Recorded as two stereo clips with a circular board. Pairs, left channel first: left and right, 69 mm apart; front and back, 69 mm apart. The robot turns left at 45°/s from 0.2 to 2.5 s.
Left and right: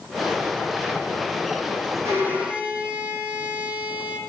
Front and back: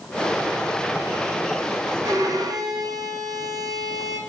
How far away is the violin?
About 4.5 m.